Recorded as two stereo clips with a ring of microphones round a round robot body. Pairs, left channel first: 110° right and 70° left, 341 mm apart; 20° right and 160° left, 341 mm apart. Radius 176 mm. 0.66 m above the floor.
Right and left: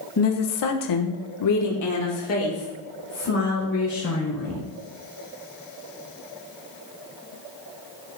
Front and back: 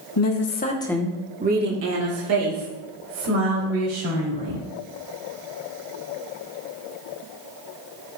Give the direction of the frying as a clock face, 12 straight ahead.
I don't hear frying.